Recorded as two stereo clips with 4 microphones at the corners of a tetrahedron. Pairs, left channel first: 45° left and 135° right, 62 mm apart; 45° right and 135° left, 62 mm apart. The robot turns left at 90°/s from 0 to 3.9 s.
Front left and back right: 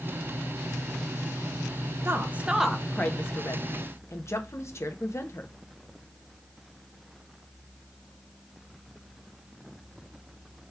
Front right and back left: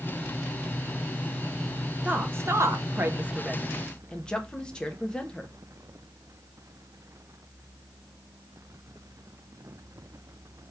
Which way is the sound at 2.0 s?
165° right.